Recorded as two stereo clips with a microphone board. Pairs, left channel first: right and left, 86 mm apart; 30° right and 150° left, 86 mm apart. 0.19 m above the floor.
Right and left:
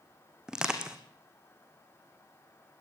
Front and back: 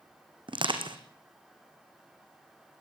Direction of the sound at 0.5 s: 175° left.